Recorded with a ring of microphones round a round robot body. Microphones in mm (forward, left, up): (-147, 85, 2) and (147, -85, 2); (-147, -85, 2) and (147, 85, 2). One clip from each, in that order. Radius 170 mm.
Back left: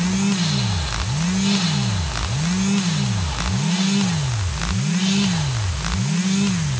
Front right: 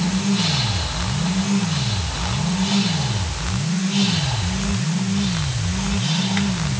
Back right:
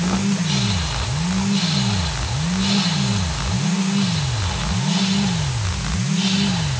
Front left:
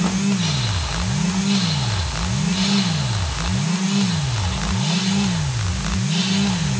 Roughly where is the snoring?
No snoring in this recording.